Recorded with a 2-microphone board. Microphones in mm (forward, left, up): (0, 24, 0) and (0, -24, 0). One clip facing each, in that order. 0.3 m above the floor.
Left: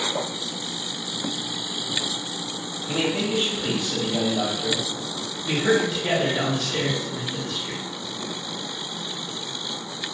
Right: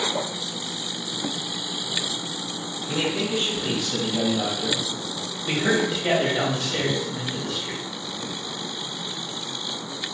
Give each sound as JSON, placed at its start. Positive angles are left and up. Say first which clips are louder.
{"t": 2.9, "sound": "a man speaking", "louder": "left 1 dB", "side_deg": 30, "distance_m": 1.6}
{"t": 5.5, "sound": "a man speaking", "louder": "left 1 dB", "side_deg": -30, "distance_m": 1.9}